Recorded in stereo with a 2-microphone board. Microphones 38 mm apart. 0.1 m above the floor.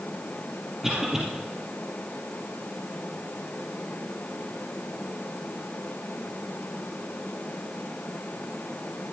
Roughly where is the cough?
Centre.